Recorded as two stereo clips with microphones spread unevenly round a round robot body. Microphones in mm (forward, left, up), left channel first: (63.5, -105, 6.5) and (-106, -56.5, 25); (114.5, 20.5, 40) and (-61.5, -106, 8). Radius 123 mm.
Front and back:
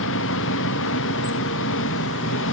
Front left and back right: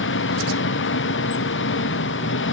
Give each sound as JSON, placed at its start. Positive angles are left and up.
{"t": 0.0, "sound": "an engine running", "azimuth_deg": 5}